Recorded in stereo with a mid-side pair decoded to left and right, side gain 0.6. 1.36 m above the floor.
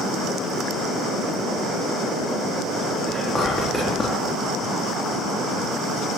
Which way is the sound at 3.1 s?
15° left.